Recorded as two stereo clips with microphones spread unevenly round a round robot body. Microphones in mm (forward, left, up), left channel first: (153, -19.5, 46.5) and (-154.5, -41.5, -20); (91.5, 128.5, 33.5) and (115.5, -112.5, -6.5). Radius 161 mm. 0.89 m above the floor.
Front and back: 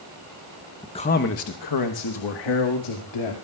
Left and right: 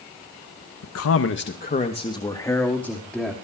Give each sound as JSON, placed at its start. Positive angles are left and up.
{"t": 0.8, "sound": "a man speaking", "azimuth_deg": 90, "distance_m": 1.0}